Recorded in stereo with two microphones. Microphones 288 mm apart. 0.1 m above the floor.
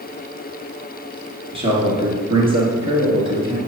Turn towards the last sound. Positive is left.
turn(degrees=-15)  # may be behind; listen again after turning